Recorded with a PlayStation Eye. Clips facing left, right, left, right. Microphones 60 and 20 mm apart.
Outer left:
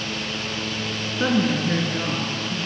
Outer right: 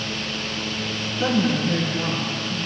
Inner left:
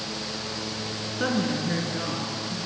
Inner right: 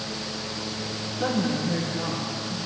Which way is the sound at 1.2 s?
35° left (ahead or behind).